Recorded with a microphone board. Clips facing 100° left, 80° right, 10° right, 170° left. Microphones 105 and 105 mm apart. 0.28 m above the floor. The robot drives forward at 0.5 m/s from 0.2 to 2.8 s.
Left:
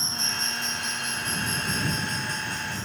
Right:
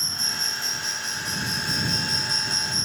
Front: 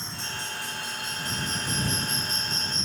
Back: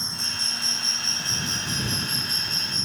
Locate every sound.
0.0 s an insect: 125° right; by 2.9 s 145° right